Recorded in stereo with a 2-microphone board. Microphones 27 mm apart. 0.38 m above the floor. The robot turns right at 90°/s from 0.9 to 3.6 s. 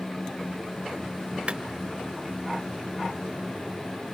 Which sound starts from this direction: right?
A clap, at 1.5 s.